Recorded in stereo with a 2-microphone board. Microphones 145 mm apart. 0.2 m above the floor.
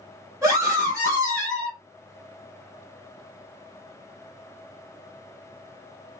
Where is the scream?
20° right (ahead or behind), 2.0 m.